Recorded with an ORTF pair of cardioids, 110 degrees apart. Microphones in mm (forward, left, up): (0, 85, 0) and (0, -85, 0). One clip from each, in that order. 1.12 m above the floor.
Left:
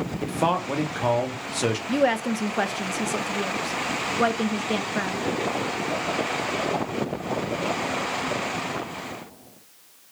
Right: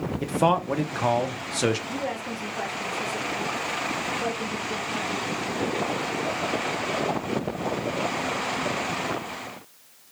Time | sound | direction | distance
0.2 | a man speaking | 5° right | 0.6 m
1.9 | a woman speaking | 65° left | 0.6 m